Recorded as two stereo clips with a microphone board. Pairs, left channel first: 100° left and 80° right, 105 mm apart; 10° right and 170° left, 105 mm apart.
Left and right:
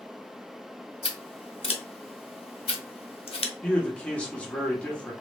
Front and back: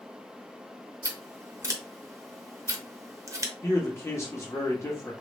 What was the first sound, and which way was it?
Scissors, 115° left.